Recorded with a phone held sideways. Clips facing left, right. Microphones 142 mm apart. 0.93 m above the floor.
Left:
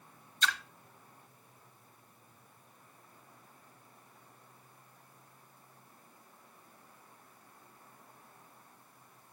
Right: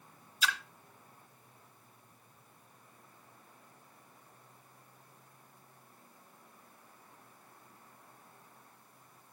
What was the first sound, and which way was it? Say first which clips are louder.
A splash: left 1 dB; 5° right (ahead or behind).